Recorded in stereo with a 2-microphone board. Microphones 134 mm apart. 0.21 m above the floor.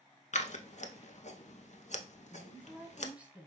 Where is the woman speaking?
10° right (ahead or behind), 1.1 m.